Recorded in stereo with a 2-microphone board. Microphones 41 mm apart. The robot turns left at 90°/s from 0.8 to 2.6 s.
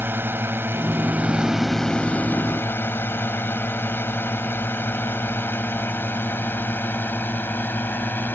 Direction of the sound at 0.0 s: 60° right (ahead or behind).